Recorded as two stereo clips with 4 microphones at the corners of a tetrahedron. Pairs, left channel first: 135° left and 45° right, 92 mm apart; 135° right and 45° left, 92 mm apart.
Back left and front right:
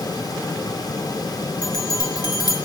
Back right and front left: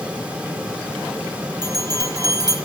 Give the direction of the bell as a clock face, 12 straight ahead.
9 o'clock.